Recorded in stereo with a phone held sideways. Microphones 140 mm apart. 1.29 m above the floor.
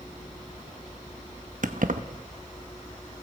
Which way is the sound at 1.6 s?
70° right (ahead or behind).